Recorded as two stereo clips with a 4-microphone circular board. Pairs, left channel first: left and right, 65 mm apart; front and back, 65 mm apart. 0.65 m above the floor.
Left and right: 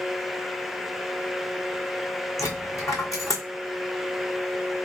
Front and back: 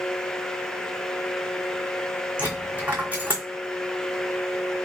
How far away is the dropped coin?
About 1.4 m.